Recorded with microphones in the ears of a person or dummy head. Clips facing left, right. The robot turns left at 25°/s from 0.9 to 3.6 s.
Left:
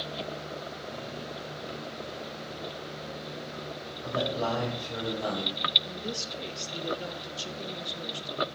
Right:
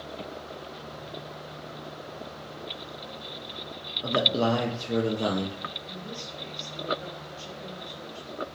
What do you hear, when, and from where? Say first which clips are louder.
4.0 s a man speaking: right 5 dB; 50° right (ahead or behind), 0.6 m
5.8 s a woman speaking: left 3 dB; 50° left (ahead or behind), 0.6 m